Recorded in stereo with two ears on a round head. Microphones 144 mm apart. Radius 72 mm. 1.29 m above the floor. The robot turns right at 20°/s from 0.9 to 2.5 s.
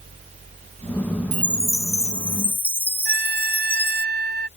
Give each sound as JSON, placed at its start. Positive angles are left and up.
{"t": 1.3, "sound": "a chime", "side_deg": -10}
{"t": 3.0, "sound": "a trumpet", "side_deg": -65}